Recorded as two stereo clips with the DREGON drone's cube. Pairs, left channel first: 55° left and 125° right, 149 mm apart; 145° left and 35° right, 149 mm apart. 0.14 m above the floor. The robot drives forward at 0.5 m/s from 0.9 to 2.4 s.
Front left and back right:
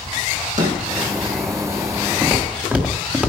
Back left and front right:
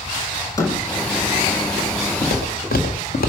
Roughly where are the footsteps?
Behind left.